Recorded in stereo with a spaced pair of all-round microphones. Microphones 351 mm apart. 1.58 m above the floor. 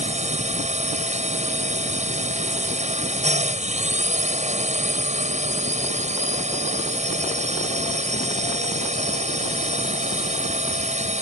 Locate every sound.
0.0 s a drone: 20° right (ahead or behind)